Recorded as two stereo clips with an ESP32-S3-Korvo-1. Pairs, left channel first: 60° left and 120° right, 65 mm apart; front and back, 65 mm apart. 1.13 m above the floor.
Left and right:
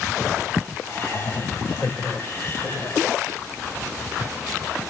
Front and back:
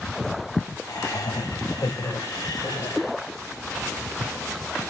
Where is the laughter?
5° left, 5.5 m.